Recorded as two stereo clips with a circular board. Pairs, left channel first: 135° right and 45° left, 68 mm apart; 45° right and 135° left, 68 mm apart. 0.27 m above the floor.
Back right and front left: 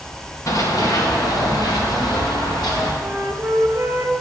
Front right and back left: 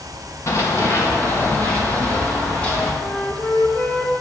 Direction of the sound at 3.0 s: 15° left.